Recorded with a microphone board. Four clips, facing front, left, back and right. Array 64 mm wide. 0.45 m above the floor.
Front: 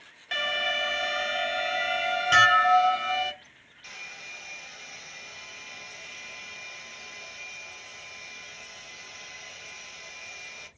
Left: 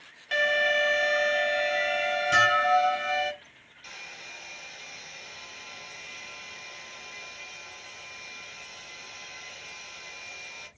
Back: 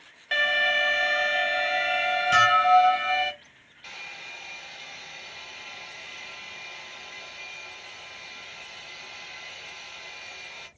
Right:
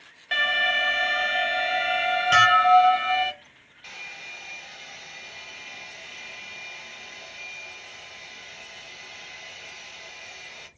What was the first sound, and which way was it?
An alarm, 130° right.